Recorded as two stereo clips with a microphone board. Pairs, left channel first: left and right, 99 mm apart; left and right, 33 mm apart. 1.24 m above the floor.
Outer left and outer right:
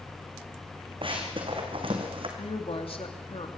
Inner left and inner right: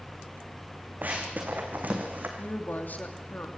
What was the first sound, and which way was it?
Running footsteps, 55° right (ahead or behind).